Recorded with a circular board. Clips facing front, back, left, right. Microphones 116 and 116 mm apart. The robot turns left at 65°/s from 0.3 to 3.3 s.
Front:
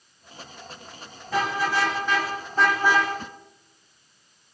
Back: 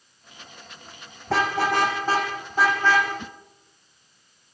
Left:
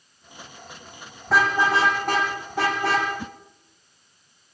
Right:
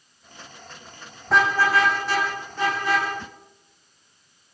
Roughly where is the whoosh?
Left.